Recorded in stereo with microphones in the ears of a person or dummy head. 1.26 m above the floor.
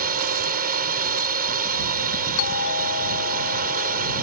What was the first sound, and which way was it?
A drone, 45° right (ahead or behind).